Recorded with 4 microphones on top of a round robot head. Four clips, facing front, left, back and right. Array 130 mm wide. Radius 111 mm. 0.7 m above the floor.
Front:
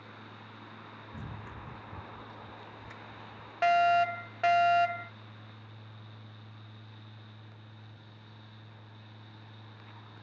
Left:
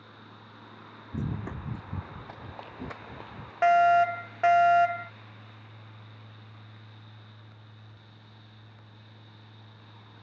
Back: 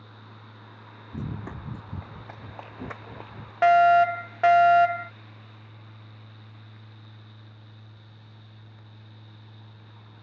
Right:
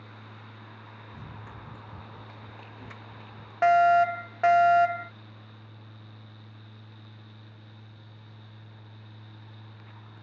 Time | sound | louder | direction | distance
1.1 | running footsteps | left 12 dB, back 11 dB | 125° left | ?
3.6 | a fire alarm | right 1 dB, back 8 dB | 165° right | ?